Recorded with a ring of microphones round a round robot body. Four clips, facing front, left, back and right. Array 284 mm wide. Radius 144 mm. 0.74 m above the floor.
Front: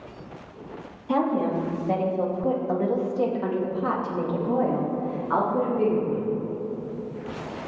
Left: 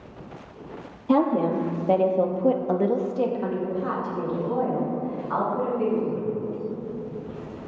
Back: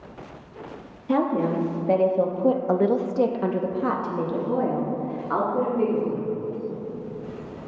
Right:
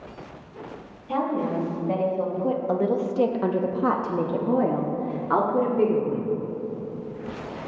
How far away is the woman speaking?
About 1.5 m.